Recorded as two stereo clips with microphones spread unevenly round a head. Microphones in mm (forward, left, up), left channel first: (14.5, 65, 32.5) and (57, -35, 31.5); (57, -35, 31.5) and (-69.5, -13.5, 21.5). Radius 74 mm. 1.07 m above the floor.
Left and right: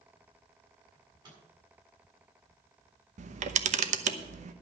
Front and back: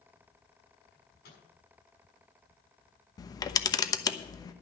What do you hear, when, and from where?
0.9 s a microwave: 15° right, 7 m
3.2 s a camera shutter: 75° right, 1.0 m